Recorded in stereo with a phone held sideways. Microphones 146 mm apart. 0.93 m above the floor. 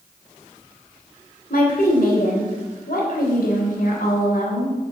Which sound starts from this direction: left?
A woman speaking, at 1.5 s.